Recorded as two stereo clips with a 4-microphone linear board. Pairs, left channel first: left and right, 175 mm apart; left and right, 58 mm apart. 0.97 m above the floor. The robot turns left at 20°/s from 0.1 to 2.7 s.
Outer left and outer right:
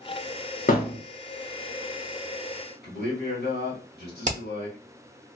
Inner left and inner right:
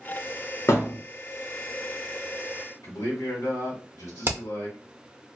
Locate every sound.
0.7 s a thud: 50° left (ahead or behind), 1.0 m; by 1.0 s 55° left (ahead or behind), 1.0 m
2.8 s a man speaking: 75° left (ahead or behind), 1.0 m
4.2 s hammering: 45° right (ahead or behind), 0.6 m